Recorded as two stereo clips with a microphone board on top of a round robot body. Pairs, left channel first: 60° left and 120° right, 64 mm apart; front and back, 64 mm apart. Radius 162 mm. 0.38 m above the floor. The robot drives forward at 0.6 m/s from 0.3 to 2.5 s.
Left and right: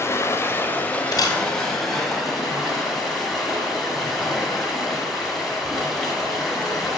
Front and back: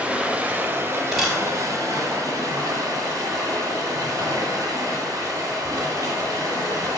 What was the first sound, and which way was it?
Running water, 110° left.